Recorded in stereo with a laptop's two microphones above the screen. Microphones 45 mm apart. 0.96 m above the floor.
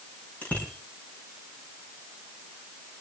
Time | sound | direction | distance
0.4 | a bicycle bell | 35° left (ahead or behind) | 7.5 m